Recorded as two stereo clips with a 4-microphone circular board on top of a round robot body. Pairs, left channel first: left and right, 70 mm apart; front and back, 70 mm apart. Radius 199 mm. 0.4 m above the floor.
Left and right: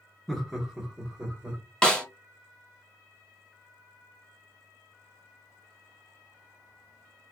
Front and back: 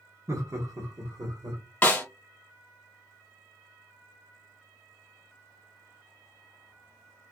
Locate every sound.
0.3 s laughter: straight behind, 0.9 m; by 1.6 s 160° right, 1.5 m
1.8 s a snare drum: 30° left, 1.4 m